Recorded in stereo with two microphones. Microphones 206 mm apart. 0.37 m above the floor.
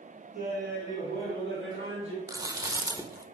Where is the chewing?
20° right (ahead or behind), 0.8 m.